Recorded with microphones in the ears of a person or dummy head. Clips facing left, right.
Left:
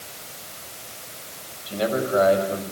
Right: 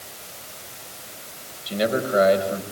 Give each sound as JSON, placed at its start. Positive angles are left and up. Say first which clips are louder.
{"t": 1.7, "sound": "a man speaking", "louder": "right 1 dB", "side_deg": -25, "distance_m": 6.0}